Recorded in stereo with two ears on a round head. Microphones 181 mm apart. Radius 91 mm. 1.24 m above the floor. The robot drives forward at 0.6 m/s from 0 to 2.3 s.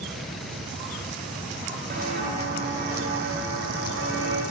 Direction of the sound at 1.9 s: 45° right (ahead or behind).